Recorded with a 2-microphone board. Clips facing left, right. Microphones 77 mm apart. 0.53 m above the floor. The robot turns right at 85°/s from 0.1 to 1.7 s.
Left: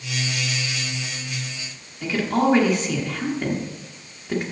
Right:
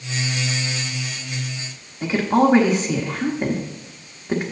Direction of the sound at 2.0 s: 20° right (ahead or behind).